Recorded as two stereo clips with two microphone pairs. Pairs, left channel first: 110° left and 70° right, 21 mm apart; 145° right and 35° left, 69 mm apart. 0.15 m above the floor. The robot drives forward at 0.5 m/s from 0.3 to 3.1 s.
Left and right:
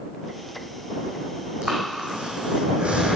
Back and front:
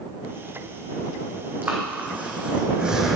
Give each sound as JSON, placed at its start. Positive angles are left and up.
{"t": 1.6, "sound": "breathing", "azimuth_deg": -30, "distance_m": 1.8}